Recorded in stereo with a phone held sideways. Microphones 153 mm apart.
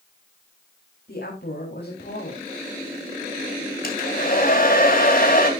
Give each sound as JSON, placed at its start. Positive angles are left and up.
{"t": 1.1, "sound": "a woman speaking", "side_deg": 85, "distance_m": 4.0}
{"t": 3.8, "sound": "a hair dryer", "side_deg": 65, "distance_m": 3.0}